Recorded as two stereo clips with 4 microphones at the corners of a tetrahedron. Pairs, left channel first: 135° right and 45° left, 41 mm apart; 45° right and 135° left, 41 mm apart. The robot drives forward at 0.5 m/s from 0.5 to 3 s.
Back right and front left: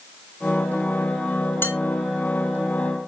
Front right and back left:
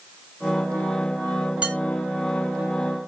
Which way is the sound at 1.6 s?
160° right.